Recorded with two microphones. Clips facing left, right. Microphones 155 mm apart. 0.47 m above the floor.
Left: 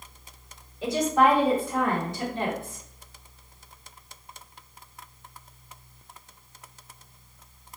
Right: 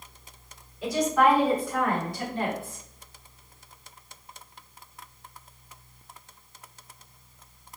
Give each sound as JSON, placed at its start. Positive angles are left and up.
{"t": 0.8, "sound": "a woman speaking", "side_deg": 25, "distance_m": 1.2}